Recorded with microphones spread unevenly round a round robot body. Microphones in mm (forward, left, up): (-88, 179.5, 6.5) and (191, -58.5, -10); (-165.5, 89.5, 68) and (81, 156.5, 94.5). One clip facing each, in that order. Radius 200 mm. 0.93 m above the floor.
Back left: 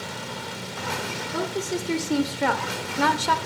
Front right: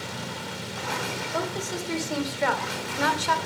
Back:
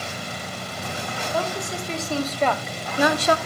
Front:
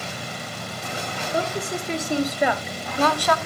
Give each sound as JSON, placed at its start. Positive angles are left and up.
{"t": 1.3, "sound": "a woman speaking", "azimuth_deg": 85, "distance_m": 3.0}